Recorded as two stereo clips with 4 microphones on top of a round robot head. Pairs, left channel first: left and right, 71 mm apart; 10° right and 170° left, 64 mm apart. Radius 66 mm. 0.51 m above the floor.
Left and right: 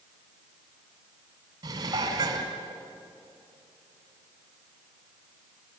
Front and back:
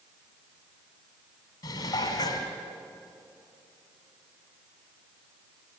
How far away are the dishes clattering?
About 2 m.